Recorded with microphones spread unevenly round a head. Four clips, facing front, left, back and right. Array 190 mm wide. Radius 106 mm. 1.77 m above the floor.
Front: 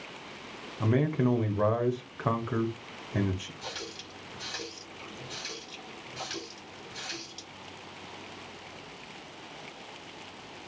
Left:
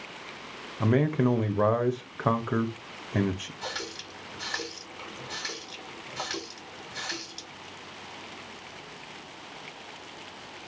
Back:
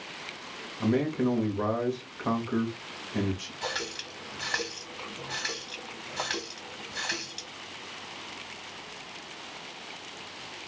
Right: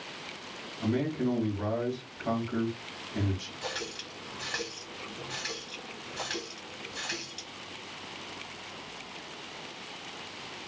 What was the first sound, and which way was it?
A man speaking, 85° left.